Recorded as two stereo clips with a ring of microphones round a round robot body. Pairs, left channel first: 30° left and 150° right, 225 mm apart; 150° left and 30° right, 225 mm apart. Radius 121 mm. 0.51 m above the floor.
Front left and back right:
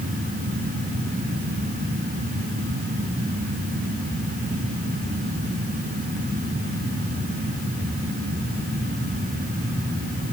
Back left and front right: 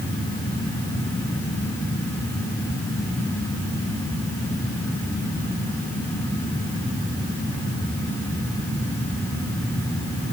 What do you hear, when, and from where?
Only background noise.